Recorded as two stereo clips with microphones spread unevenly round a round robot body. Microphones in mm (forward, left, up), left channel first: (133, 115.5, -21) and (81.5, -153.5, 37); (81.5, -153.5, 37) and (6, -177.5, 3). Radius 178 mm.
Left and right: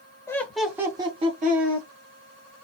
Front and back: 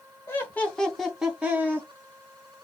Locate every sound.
0.3 s laughter: 90° left, 0.8 m; by 1.9 s 160° right, 1.1 m